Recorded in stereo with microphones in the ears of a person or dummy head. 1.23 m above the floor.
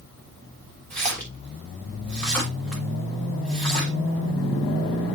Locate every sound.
0.9 s a splash: 5° left (ahead or behind), 3 m